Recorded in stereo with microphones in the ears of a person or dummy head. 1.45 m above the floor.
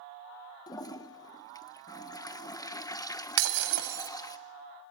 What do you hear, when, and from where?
0.7 s a toilet flushing: 20° left (ahead or behind), 0.9 m
3.4 s breaking glass: 70° right (ahead or behind), 3 m